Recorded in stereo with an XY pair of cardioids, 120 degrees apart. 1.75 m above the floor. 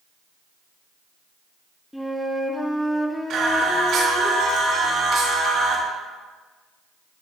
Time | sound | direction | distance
1.9 | a flute | 5° left | 1.3 m
3.3 | singing | 60° right | 4 m